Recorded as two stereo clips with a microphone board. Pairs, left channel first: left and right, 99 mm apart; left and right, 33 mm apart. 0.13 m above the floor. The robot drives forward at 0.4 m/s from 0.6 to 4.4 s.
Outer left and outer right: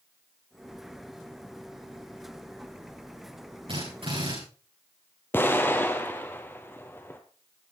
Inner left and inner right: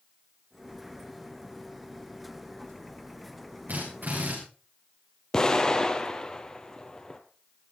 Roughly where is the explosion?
Left.